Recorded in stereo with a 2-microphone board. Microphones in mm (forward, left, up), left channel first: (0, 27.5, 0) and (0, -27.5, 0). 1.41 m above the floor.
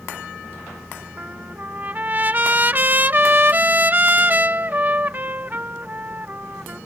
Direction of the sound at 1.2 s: 35° right (ahead or behind).